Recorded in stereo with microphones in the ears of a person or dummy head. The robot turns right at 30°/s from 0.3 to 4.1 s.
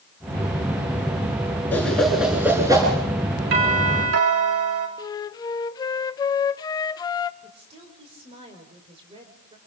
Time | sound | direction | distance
1.7 | a whoosh | 15° left (ahead or behind) | 6.5 m
3.5 | a doorbell | 60° right (ahead or behind) | 4 m
5.0 | a flute | 20° left (ahead or behind) | 0.8 m
7.4 | a woman speaking | 35° right (ahead or behind) | 4.5 m